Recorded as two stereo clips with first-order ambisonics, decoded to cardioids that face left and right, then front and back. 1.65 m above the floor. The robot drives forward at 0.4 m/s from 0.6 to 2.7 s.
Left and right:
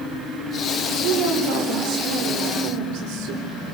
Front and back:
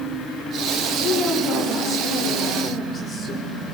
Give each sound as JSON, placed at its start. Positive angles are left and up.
{"t": 1.0, "sound": "a woman speaking", "azimuth_deg": -60, "distance_m": 5.5}